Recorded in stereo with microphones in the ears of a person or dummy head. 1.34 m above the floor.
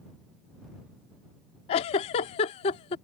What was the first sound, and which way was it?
A giggle, 25° left (ahead or behind).